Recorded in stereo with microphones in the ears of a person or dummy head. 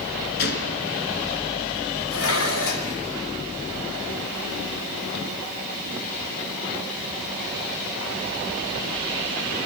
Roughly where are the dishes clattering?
Left.